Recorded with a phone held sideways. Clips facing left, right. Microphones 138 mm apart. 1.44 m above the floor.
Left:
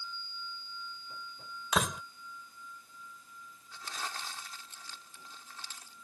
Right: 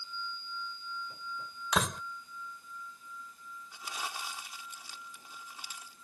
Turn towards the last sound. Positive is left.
turn(degrees=-10)  # may be behind; listen again after turning